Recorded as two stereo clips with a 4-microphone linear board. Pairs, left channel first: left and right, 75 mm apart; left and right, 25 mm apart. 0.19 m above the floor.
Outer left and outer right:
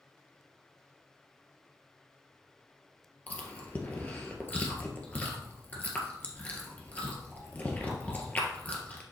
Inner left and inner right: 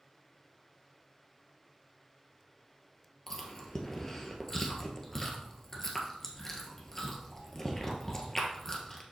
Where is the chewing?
25° left (ahead or behind), 1.5 m.